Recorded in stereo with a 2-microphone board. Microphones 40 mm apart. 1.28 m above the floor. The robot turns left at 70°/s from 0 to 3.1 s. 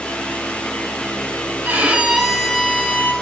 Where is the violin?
130° right, 2.5 m; by 3.1 s 130° left, 2.5 m.